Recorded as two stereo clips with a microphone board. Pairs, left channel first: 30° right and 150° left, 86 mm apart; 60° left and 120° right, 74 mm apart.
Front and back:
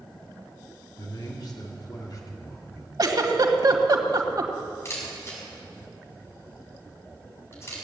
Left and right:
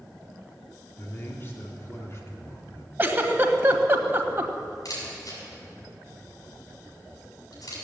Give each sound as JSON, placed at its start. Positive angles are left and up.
{"t": 1.0, "sound": "a man speaking", "azimuth_deg": 0, "distance_m": 2.5}
{"t": 3.0, "sound": "a giggle", "azimuth_deg": 180, "distance_m": 1.6}
{"t": 4.8, "sound": "a camera shutter", "azimuth_deg": 25, "distance_m": 7.0}